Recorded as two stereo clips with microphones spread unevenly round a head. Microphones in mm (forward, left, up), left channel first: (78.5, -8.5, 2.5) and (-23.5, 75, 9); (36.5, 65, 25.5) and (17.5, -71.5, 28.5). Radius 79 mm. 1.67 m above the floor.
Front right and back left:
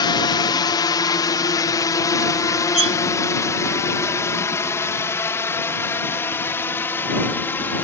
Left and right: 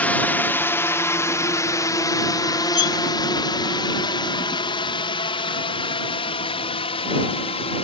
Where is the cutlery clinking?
105° left.